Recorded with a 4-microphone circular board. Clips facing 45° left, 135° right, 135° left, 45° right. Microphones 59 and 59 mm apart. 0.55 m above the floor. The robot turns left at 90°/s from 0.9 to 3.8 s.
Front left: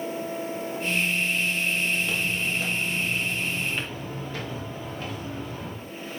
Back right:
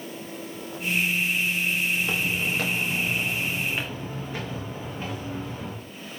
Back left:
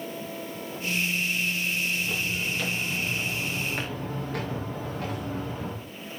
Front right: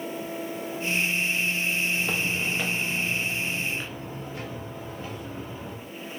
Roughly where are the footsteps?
Ahead right.